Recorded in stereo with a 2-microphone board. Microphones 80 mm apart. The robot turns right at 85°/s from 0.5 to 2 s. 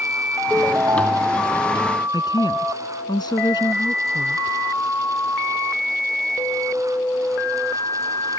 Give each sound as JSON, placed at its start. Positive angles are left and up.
{"t": 0.5, "sound": "a ringtone", "azimuth_deg": -160}
{"t": 2.1, "sound": "a woman speaking", "side_deg": 65}